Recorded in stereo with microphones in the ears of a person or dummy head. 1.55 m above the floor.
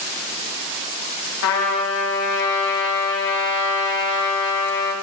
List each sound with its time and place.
1.4 s a trumpet: 75° left (ahead or behind), 2.0 m